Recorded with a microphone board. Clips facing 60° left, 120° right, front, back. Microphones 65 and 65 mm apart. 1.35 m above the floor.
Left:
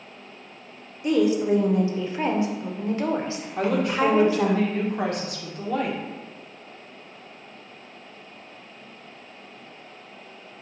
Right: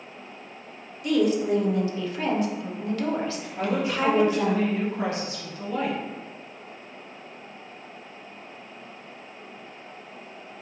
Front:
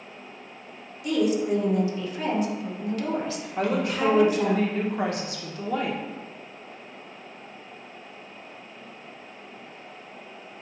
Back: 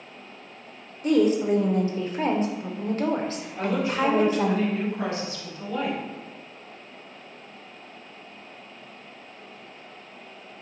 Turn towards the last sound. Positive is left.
turn(degrees=25)